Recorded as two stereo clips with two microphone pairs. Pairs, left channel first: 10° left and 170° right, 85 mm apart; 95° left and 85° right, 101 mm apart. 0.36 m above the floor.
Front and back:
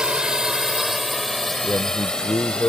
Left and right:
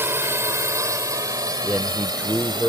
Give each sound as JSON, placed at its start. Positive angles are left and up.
{"t": 0.0, "sound": "a drone", "azimuth_deg": -105}
{"t": 1.6, "sound": "a man speaking", "azimuth_deg": -20}